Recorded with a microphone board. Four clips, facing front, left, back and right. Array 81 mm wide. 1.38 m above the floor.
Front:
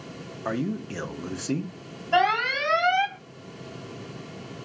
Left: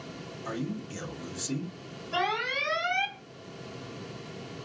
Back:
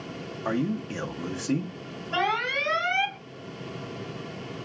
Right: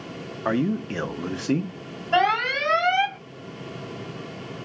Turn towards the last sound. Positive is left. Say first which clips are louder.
# right 9 dB, front 5 dB
turn(degrees=-55)